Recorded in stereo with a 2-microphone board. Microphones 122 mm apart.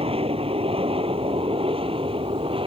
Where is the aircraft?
50° right (ahead or behind); by 2.7 s 45° right (ahead or behind).